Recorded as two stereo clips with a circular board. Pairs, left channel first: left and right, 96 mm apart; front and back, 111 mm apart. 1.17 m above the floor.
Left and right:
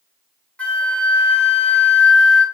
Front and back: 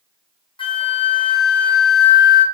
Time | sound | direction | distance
0.6 | a flute | 15° left | 0.6 m